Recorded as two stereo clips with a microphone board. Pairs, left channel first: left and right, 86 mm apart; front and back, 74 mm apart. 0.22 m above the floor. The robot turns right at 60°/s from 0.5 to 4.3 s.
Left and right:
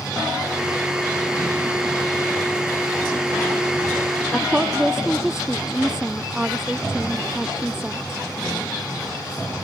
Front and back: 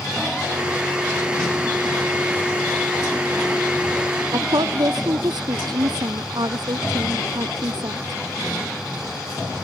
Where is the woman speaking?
175° right.